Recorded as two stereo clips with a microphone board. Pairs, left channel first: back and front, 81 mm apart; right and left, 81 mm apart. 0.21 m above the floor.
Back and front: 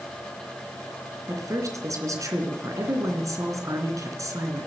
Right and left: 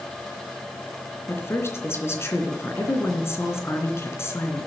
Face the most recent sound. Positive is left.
turn(degrees=-40)